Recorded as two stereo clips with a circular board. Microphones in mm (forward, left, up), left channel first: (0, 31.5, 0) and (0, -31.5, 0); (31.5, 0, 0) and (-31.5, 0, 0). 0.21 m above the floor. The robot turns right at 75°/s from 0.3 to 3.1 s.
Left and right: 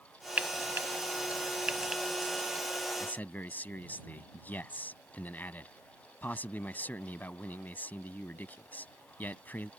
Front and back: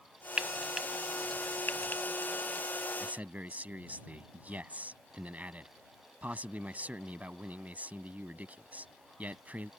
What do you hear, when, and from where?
0.4 s frying: 130° right; by 2.6 s 40° left
3.0 s a man speaking: 125° left; by 9.7 s 135° left